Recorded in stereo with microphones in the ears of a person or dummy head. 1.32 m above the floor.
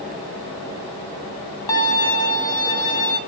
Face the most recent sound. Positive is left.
turn(degrees=20)  # may be behind; listen again after turning